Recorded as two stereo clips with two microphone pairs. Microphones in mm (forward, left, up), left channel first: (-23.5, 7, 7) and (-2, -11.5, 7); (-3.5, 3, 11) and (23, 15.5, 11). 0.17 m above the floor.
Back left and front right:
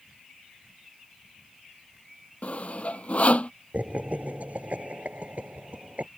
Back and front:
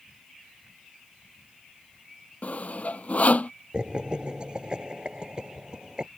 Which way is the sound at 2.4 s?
175° left.